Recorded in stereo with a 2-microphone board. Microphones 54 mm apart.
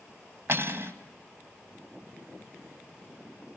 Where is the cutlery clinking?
50° right (ahead or behind), 1.2 m.